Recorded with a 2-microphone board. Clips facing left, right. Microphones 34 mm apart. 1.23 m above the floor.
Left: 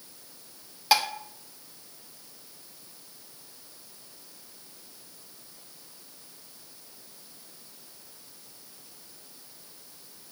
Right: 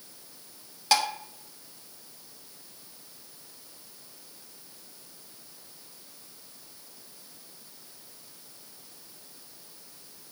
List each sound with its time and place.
0.9 s dishes clattering: 15° left (ahead or behind), 1.2 m